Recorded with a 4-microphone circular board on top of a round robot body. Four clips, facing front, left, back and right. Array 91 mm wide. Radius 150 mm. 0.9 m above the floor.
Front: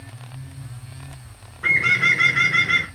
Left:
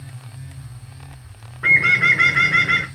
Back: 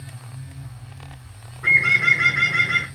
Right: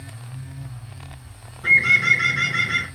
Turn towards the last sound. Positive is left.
turn(degrees=80)